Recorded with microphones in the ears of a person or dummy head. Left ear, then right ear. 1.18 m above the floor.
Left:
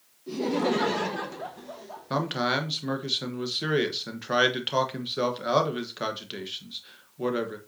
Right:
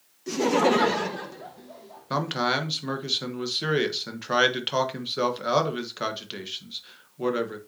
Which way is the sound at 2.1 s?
5° right (ahead or behind).